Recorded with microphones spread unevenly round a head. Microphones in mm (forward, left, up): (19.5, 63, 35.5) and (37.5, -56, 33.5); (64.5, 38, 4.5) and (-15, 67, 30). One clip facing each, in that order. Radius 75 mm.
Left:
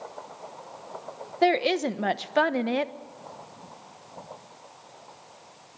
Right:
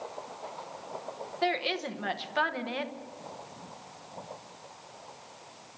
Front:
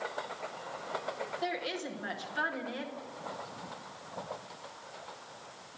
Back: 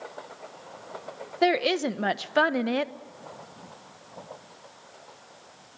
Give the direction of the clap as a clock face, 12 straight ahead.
I don't hear a clap.